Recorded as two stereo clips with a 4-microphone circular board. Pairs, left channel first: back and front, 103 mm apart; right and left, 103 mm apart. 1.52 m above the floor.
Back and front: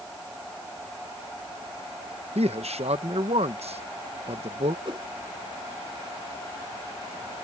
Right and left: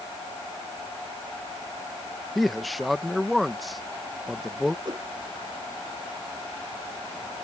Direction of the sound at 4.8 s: 40° left.